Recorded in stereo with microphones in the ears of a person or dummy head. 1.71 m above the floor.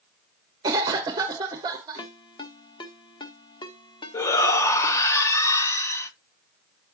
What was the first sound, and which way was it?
A cough, 25° right (ahead or behind).